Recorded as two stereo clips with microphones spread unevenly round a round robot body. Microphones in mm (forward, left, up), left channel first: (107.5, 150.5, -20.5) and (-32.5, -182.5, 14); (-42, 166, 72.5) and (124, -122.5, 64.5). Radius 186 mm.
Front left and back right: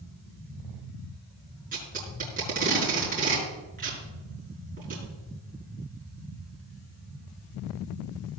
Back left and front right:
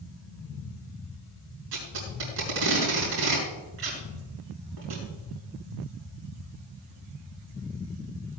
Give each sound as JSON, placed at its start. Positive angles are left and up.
{"t": 1.7, "sound": "tape being pulled", "azimuth_deg": -45, "distance_m": 6.0}